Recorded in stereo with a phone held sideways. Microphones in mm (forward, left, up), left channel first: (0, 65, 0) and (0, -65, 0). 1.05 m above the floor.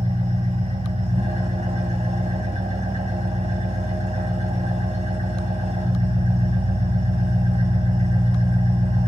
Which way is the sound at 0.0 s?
65° right (ahead or behind).